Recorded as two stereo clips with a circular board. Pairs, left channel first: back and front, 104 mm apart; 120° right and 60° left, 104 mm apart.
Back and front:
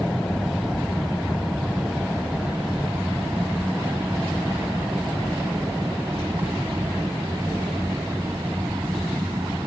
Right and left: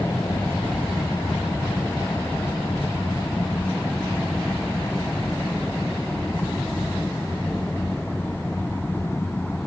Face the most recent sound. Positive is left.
turn(degrees=-55)